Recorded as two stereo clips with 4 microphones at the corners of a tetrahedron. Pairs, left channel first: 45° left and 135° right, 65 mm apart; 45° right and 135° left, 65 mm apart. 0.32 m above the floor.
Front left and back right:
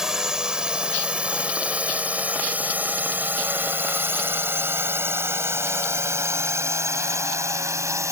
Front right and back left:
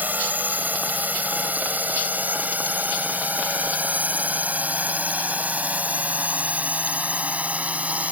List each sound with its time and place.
0.0 s a drone: 150° left; by 8.1 s 160° right